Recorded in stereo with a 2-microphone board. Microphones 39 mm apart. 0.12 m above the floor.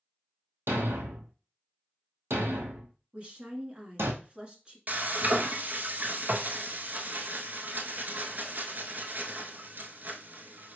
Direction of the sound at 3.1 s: 25° right (ahead or behind).